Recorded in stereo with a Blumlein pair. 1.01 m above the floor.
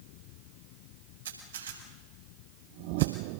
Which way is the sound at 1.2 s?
65° right.